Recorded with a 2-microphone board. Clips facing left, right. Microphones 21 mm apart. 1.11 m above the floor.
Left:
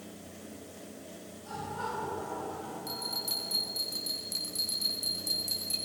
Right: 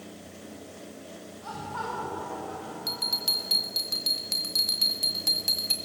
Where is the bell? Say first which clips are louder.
Right 9 dB; 60° right (ahead or behind), 4 m.